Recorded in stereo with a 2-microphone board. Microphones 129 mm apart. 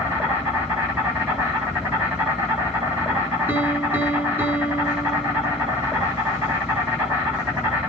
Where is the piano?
15° right (ahead or behind), 2.0 m.